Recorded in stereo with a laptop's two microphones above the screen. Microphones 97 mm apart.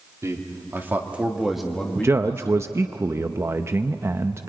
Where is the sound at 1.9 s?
30° right (ahead or behind), 0.5 m.